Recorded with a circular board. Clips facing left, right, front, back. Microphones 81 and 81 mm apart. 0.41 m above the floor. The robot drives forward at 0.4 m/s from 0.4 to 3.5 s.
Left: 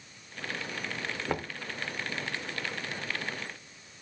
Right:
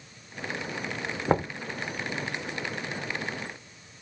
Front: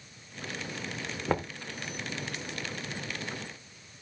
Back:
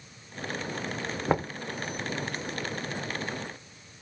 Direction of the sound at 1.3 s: 115° right.